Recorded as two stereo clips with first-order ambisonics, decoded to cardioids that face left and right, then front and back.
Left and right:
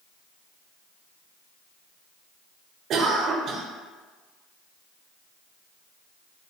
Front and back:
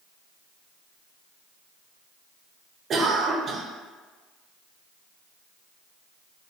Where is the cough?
125° right, 0.6 m.